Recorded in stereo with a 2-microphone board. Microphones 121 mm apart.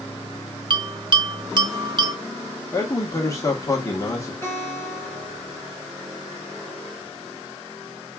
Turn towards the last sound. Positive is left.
turn(degrees=20)  # may be behind; listen again after turning